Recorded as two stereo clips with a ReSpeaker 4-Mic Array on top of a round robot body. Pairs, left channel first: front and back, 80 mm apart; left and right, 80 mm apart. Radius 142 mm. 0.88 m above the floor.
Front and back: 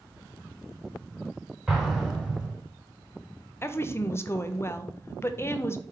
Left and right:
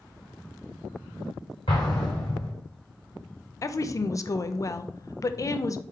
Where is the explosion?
95° left, 0.5 m.